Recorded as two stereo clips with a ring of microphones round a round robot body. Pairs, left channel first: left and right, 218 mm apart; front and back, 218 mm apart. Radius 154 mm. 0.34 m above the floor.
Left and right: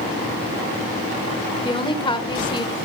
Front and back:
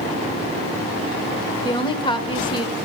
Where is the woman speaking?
45° left, 1.0 m.